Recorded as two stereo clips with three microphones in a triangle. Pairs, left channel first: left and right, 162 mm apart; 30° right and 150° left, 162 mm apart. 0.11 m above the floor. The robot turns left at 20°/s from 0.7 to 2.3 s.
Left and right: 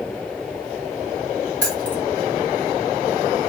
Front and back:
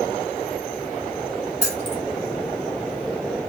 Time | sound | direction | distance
1.6 | keys jangling | 175° left | 1.5 m